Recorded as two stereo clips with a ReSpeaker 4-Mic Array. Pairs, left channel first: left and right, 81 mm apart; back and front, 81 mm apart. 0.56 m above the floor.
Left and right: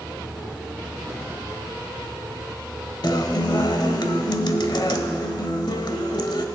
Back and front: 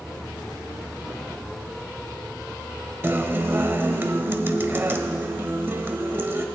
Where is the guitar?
60° left, 0.8 m.